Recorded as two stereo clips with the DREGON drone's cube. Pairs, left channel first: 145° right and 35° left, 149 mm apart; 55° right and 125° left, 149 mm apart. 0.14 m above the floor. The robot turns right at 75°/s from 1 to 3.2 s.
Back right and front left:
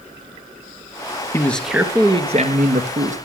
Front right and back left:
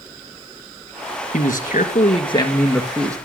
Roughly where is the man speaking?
Right.